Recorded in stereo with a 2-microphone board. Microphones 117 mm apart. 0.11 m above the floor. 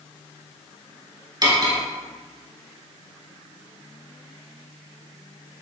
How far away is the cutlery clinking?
About 1.1 m.